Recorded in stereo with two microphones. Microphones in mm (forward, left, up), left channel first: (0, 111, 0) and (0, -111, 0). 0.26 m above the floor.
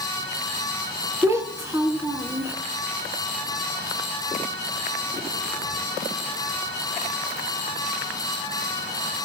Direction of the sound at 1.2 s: 15° right (ahead or behind).